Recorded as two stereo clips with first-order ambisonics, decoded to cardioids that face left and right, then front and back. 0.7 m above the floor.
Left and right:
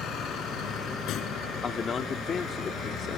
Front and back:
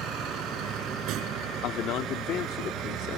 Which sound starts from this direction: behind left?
A vehicle, at 0.0 s.